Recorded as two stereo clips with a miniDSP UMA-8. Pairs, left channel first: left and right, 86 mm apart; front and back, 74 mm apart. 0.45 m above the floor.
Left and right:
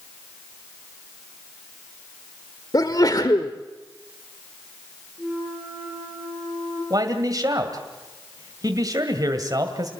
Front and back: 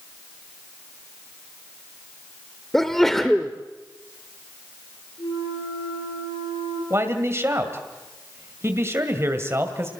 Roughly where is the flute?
Ahead.